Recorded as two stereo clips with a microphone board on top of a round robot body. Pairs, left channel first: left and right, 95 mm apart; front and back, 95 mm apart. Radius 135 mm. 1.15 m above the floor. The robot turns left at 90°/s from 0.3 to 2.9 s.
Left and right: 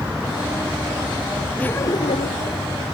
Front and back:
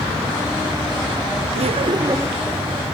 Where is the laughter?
170° left; by 2.6 s 80° left.